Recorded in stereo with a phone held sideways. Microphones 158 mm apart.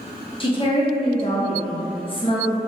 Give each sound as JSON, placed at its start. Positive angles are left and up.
{"t": 0.4, "sound": "a woman speaking", "side_deg": 30, "distance_m": 0.6}